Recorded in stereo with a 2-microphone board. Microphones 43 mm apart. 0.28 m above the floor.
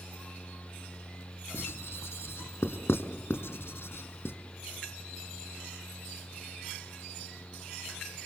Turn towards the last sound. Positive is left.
turn(degrees=70)  # may be behind; listen again after turning